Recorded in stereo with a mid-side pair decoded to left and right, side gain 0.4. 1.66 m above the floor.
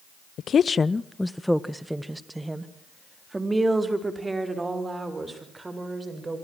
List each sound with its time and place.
0.4 s a woman speaking: 70° left, 0.9 m; by 6.4 s 30° right, 7.5 m